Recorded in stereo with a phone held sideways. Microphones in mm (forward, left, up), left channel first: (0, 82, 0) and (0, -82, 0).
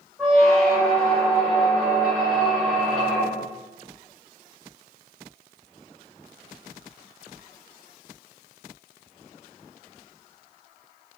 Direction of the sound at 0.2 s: 5° left (ahead or behind).